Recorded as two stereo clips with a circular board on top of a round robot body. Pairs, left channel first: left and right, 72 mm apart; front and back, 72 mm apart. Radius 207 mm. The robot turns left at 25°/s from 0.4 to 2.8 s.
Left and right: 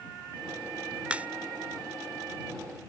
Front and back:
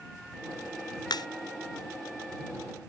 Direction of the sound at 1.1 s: 15° right.